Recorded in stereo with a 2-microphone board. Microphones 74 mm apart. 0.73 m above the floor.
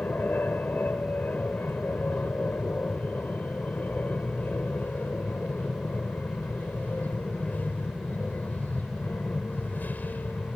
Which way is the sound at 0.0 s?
25° left (ahead or behind).